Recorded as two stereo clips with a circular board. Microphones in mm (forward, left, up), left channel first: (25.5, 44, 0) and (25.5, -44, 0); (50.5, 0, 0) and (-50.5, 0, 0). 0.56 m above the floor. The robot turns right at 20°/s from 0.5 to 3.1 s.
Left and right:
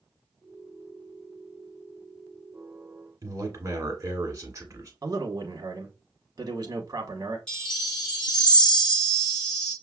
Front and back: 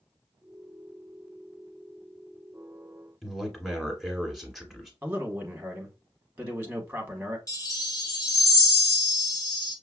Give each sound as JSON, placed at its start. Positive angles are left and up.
{"t": 3.2, "sound": "a man speaking", "azimuth_deg": -95, "distance_m": 1.5}
{"t": 5.0, "sound": "a man speaking", "azimuth_deg": -110, "distance_m": 1.0}
{"t": 7.5, "sound": "a chime", "azimuth_deg": 15, "distance_m": 1.5}